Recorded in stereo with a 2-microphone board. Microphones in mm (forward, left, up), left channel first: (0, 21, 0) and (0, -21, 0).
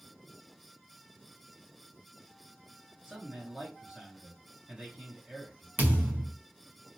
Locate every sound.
3.0 s a man speaking: 15° right (ahead or behind), 2.5 m
5.8 s a thud: 45° right (ahead or behind), 1.1 m